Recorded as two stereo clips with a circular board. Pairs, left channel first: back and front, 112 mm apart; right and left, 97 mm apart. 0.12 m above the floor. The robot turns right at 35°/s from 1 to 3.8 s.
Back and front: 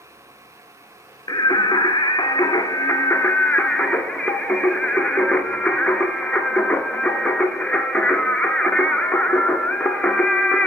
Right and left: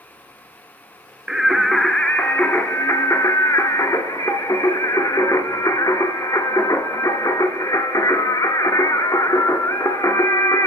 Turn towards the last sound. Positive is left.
turn(degrees=-105)